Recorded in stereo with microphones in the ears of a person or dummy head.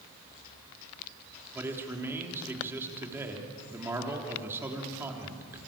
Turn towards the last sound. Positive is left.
turn(degrees=-15)  # may be behind; listen again after turning